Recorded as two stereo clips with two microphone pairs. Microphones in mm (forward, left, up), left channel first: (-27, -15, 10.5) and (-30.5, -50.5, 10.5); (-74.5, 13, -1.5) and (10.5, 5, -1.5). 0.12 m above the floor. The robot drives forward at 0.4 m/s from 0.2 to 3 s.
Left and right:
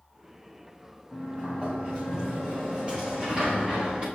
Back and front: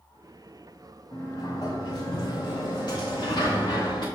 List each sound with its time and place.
1.1 s a sliding door: 150° right, 3 m; by 4.0 s 155° right, 3.5 m